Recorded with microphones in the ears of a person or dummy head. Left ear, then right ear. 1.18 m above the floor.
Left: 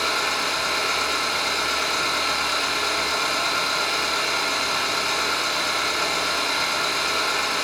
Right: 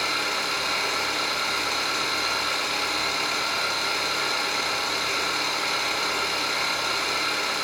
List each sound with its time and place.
0.0 s an engine running: 45° left (ahead or behind), 1.3 m